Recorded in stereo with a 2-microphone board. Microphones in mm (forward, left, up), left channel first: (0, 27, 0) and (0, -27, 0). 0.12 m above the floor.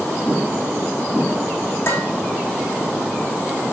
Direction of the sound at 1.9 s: 55° left (ahead or behind).